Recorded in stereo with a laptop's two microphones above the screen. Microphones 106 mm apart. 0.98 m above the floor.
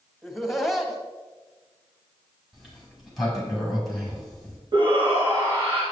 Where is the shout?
50° right (ahead or behind), 1.9 m.